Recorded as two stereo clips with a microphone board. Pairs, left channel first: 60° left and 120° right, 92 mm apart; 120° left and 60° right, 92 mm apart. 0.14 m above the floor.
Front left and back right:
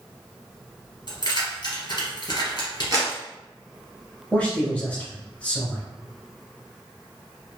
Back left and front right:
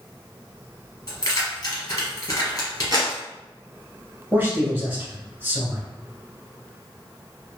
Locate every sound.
1.1 s keys jangling: 80° left, 1.6 m
2.9 s a clap: 90° right, 1.5 m
4.3 s a man speaking: 5° right, 1.3 m